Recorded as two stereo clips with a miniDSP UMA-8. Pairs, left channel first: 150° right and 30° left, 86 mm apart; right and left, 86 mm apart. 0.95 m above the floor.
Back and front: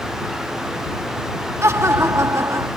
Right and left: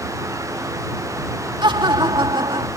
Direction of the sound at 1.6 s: 80° left.